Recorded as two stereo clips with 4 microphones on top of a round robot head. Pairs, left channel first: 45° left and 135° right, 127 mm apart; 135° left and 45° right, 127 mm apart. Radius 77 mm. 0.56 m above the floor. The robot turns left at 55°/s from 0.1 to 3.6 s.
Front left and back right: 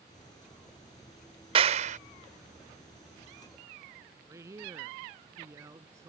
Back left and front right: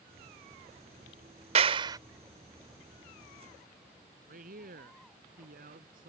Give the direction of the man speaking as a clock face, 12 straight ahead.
2 o'clock.